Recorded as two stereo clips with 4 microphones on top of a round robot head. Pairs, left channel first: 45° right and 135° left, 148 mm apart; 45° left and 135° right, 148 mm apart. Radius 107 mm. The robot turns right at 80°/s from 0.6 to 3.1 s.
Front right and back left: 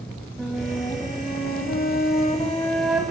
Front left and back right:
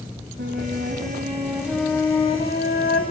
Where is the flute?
135° right, 3 m; by 3.0 s 55° left, 3 m.